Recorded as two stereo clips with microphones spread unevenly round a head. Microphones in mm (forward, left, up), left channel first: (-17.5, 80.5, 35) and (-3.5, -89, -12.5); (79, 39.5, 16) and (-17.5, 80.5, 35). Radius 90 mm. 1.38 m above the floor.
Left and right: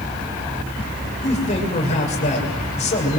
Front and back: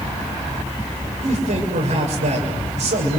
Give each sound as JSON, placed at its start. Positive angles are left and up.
{"t": 1.2, "sound": "a man speaking", "azimuth_deg": 150, "distance_m": 7.0}